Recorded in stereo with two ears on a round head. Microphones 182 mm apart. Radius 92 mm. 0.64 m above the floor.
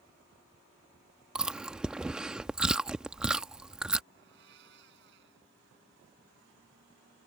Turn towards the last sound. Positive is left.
turn(degrees=-55)  # may be behind; listen again after turning